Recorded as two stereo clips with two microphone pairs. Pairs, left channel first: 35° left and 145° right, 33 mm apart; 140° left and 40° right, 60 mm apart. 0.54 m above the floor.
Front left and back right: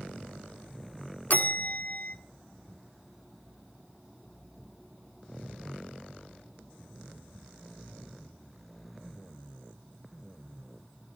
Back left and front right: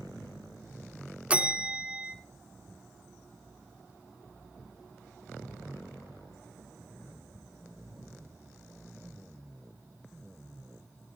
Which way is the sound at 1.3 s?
20° left.